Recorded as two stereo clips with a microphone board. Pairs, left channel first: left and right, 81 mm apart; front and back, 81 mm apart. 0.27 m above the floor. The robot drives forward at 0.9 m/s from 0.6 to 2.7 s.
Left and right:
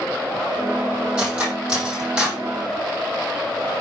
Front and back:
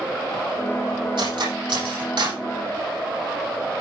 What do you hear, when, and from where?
1.2 s cutlery clinking: 170° right, 7 m